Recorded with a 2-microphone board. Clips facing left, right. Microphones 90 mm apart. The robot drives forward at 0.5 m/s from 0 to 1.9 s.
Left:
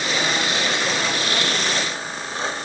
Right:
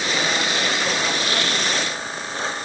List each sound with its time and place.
Only background noise.